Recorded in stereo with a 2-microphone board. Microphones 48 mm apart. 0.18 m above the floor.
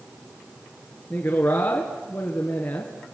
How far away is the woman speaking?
About 2.5 m.